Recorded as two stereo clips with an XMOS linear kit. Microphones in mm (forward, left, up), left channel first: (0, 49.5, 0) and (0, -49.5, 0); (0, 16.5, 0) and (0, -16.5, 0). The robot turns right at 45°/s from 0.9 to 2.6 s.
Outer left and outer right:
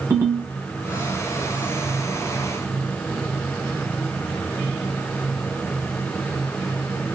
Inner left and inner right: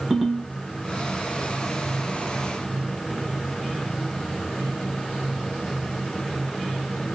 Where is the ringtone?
20° right (ahead or behind), 1.3 m.